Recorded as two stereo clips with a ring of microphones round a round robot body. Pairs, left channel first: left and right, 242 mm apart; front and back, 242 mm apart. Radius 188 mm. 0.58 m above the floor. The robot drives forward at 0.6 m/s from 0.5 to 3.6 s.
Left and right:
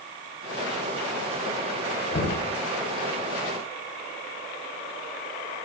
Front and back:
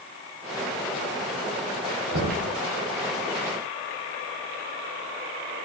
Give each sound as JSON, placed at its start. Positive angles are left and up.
{"t": 2.1, "sound": "knocking", "azimuth_deg": 140, "distance_m": 1.7}